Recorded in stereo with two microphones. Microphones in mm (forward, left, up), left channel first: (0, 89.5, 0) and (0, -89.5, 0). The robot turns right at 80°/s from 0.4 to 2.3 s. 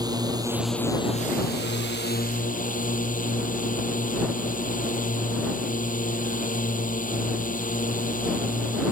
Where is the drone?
20° right; by 8.9 s 130° left.